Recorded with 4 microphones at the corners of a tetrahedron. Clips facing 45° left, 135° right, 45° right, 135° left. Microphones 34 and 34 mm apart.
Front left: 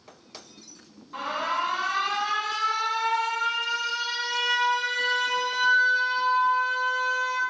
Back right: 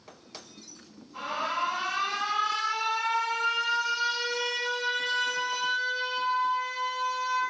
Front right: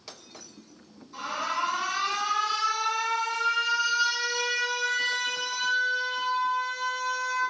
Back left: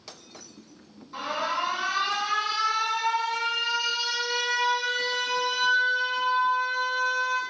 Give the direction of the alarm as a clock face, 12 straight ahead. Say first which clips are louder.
Front left 3 dB, back left 2 dB; 10 o'clock.